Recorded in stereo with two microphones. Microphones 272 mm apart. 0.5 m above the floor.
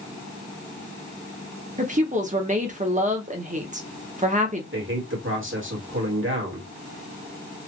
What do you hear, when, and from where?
1.8 s a woman speaking: 25° right (ahead or behind), 0.9 m
4.7 s a man speaking: 45° right (ahead or behind), 1.8 m